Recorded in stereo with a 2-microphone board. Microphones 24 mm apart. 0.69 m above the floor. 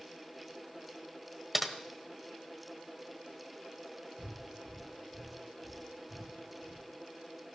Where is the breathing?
10° left (ahead or behind), 7 m.